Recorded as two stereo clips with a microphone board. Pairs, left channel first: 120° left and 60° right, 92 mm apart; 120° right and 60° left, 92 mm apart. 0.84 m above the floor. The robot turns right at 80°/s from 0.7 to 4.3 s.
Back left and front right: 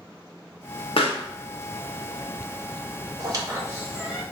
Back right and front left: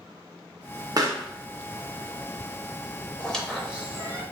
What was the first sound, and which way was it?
A pop, 105° left.